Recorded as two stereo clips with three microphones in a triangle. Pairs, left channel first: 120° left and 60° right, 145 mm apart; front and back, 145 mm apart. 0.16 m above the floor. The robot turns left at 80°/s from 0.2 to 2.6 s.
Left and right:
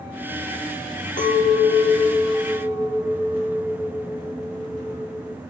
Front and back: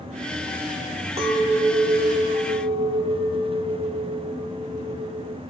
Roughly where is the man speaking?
No man speaking in this recording.